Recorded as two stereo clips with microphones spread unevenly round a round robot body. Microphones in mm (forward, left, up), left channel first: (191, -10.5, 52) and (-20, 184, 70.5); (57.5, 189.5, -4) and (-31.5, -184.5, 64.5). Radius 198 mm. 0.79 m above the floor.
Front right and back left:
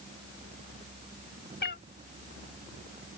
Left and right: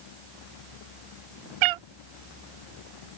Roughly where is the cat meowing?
Right.